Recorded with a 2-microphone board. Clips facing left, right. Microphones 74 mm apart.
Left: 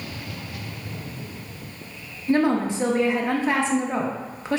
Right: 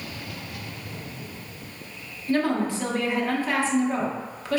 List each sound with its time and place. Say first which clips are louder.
2.3 s a woman speaking: left 3 dB; 20° left (ahead or behind), 0.6 m